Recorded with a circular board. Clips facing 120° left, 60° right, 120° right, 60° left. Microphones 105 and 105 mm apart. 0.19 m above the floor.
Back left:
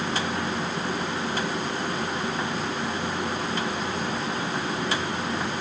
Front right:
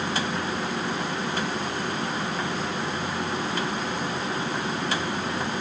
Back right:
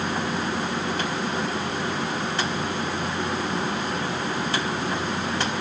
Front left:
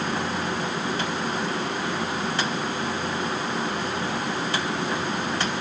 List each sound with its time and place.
Only background noise.